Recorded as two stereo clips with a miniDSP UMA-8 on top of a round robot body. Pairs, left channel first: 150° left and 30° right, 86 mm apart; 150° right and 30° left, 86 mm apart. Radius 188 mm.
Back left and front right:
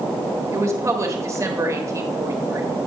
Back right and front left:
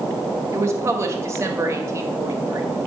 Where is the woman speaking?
5° right, 1.6 m.